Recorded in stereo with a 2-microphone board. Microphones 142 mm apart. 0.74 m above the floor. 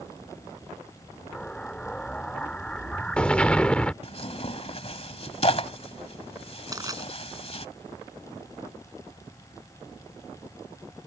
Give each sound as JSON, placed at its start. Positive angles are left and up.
{"t": 1.3, "sound": "an explosion", "side_deg": 10}
{"t": 4.0, "sound": "tearing paper", "side_deg": 45}
{"t": 6.7, "sound": "crushing", "side_deg": -25}